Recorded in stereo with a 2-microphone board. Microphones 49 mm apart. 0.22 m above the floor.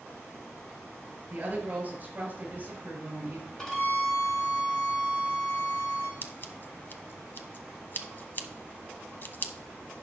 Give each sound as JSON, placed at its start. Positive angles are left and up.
{"t": 1.3, "sound": "a woman speaking", "side_deg": -35, "distance_m": 5.5}
{"t": 3.6, "sound": "a violin", "side_deg": 10, "distance_m": 2.5}
{"t": 6.2, "sound": "scissors", "side_deg": 45, "distance_m": 0.9}